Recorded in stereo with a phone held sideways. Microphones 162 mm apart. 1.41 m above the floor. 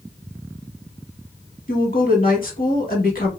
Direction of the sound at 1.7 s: 65° left (ahead or behind).